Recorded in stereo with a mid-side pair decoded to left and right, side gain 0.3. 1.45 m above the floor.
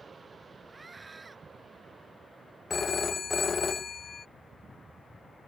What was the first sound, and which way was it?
A scream, 35° right.